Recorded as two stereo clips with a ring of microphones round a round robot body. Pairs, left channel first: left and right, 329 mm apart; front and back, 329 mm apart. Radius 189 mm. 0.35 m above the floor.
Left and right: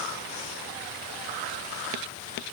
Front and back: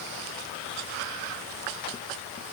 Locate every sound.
Only background noise.